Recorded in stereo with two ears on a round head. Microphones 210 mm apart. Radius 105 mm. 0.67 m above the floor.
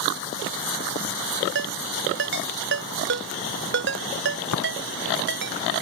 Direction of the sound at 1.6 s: 50° right (ahead or behind).